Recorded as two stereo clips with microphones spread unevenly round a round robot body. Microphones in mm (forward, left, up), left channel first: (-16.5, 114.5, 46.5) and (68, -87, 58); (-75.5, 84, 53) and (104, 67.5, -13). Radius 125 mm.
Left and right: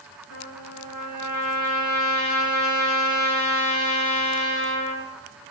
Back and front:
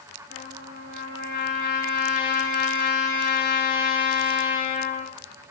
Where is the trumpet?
135° left, 6 m.